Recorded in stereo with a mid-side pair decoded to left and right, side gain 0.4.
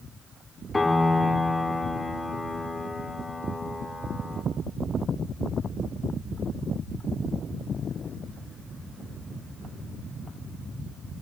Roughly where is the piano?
Ahead.